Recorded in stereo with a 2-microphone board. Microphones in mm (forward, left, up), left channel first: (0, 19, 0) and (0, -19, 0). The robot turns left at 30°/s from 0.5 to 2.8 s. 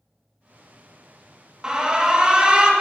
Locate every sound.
1.6 s an alarm: 25° right (ahead or behind), 1.3 m